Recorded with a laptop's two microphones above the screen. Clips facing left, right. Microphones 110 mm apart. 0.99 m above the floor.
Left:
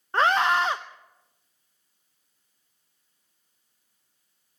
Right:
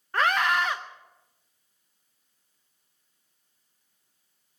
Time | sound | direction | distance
0.1 | a scream | 25° left (ahead or behind) | 0.6 m